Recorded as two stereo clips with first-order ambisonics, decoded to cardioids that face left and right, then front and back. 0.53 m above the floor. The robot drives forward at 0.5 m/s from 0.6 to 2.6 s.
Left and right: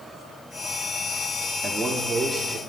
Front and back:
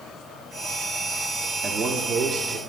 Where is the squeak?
No squeak in this recording.